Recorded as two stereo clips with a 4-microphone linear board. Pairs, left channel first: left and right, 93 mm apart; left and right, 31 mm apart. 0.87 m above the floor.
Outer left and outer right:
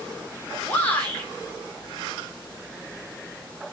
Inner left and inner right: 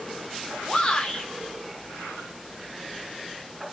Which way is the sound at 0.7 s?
20° left (ahead or behind).